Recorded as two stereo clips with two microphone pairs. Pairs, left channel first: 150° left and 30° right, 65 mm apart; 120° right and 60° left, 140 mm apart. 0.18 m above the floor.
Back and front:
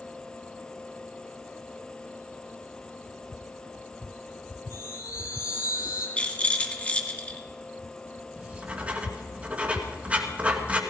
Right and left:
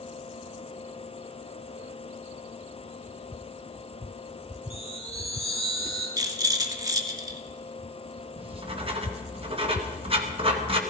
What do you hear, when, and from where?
4.7 s a chime: 155° left, 6.5 m
6.2 s a rattle: 100° left, 1.7 m
8.4 s writing: 35° left, 2 m